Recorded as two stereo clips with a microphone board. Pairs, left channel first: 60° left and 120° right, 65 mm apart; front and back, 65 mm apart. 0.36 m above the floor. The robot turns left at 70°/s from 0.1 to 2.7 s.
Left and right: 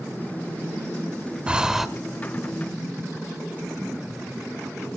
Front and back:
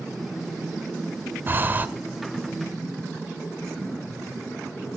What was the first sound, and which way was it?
Breathing, 175° right.